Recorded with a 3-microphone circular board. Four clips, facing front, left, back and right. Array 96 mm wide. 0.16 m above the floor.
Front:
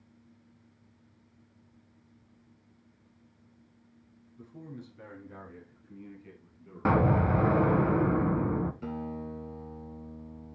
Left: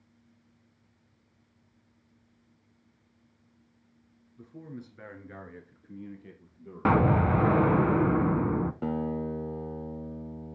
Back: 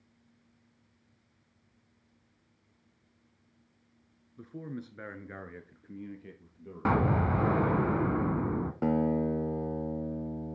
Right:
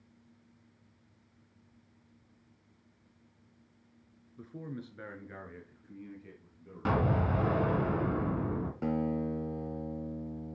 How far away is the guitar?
About 0.7 m.